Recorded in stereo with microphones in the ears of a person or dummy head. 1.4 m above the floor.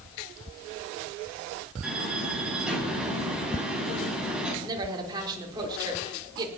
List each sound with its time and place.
1.8 s a door slam: centre (ahead or behind), 7.5 m
4.6 s a woman speaking: 20° right (ahead or behind), 4 m